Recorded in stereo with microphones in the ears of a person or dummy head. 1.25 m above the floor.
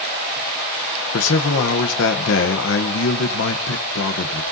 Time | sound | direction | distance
1.1 | a man speaking | 70° left (ahead or behind) | 0.9 m